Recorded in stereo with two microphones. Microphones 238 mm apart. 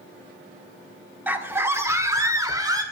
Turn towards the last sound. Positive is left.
turn(degrees=-15)  # may be behind; listen again after turning